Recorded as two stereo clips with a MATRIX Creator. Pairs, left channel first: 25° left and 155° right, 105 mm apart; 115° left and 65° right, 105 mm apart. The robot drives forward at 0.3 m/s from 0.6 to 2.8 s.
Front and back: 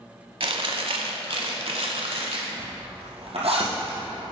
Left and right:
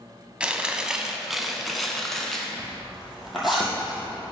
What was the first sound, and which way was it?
Chewing, 145° right.